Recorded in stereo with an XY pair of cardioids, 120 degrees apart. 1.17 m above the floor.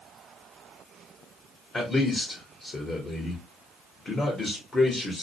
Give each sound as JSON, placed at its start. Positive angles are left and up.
{"t": 1.7, "sound": "a man speaking", "azimuth_deg": 25, "distance_m": 0.9}